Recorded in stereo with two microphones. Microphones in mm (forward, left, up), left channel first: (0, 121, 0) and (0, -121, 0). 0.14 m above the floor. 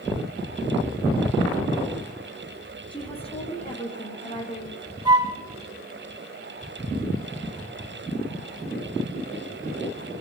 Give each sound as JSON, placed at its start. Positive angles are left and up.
{"t": 2.9, "sound": "a woman speaking", "side_deg": 20, "distance_m": 7.0}
{"t": 5.0, "sound": "a flute", "side_deg": -15, "distance_m": 6.0}